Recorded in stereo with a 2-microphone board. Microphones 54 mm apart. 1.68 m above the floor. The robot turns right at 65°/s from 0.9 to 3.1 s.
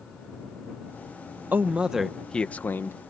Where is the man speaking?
40° right; by 3.0 s 55° left.